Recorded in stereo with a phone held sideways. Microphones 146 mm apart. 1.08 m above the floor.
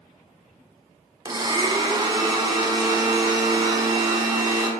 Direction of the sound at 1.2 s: 30° right (ahead or behind).